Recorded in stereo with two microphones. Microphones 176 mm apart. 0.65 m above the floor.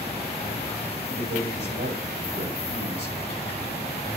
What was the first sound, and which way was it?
A man speaking, 75° right (ahead or behind).